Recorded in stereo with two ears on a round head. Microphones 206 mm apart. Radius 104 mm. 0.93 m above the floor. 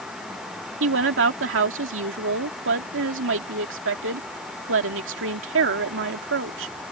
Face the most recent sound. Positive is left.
turn(degrees=-55)  # may be behind; listen again after turning